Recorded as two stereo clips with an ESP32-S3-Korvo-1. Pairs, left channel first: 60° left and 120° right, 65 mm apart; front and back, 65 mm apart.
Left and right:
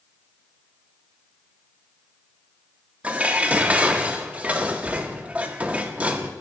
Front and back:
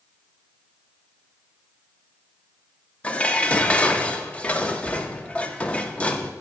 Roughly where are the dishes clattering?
Ahead right.